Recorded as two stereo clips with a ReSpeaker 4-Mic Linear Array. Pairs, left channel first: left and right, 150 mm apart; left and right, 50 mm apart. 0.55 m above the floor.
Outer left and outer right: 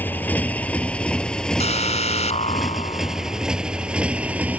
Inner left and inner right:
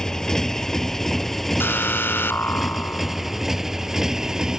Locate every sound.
0.0 s a motorcycle: 15° left (ahead or behind); by 4.6 s 10° right (ahead or behind)
1.6 s an alarm: 50° left (ahead or behind)